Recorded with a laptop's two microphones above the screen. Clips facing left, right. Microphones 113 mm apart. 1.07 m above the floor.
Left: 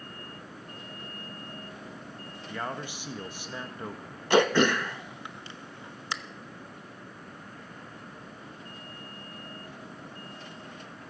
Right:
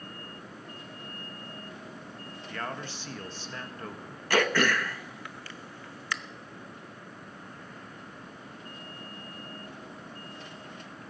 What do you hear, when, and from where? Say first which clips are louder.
2.5 s a man speaking: left 2 dB; 15° left (ahead or behind), 1.4 m
4.3 s throat clearing: left 4 dB; 20° left (ahead or behind), 0.8 m